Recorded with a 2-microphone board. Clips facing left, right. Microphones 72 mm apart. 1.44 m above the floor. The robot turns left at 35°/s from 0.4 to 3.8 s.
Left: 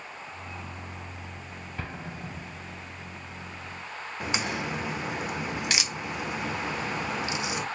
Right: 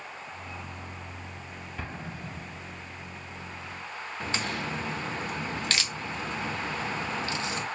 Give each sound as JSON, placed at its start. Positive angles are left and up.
{"t": 1.8, "sound": "an explosion", "side_deg": 0, "distance_m": 1.9}
{"t": 4.2, "sound": "a crack", "side_deg": 15, "distance_m": 0.5}